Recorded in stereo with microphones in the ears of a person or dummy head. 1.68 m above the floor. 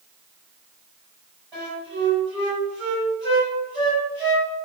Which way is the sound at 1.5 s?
Centre (ahead or behind).